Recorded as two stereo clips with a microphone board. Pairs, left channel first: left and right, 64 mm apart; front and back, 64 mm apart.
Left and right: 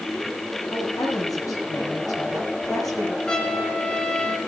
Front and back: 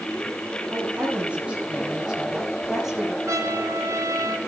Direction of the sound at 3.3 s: 165° left.